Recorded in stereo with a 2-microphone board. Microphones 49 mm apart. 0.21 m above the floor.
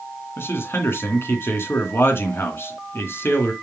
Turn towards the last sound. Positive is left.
turn(degrees=55)  # may be behind; listen again after turning